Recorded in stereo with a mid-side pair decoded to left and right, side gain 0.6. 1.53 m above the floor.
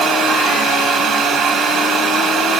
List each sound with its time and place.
0.0 s a fan: 50° right, 2 m